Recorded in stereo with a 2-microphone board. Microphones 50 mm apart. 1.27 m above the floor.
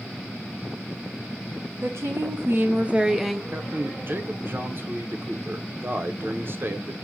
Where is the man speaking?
45° right (ahead or behind), 0.6 m.